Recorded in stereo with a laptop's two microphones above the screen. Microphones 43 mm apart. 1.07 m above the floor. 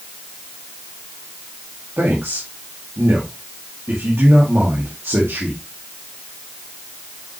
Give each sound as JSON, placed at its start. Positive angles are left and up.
{"t": 2.0, "sound": "a man speaking", "side_deg": -70, "distance_m": 2.0}